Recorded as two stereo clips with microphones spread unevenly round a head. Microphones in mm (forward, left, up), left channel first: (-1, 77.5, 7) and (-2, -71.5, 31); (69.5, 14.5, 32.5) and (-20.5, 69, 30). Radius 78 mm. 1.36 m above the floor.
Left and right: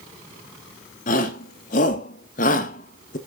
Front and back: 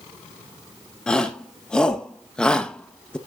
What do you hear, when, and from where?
1.1 s a shout: 50° left, 2.5 m